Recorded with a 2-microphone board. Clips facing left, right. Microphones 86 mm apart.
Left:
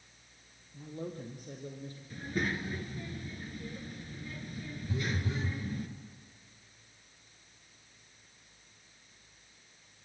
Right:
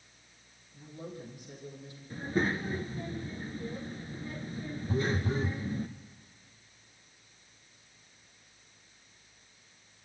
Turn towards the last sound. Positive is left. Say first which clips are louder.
# right 5 dB
turn(degrees=-40)  # may be behind; listen again after turning